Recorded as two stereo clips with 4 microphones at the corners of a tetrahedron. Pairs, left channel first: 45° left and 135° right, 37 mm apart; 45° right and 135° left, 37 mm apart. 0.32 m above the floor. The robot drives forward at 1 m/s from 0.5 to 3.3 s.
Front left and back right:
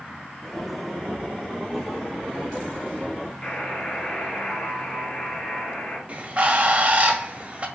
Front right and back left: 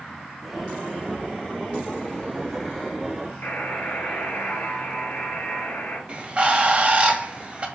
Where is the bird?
Straight behind, 1.5 m.